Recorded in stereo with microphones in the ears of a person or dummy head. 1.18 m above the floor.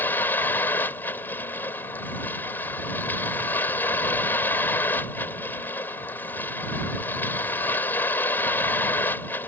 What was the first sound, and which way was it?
A vehicle, 15° left (ahead or behind).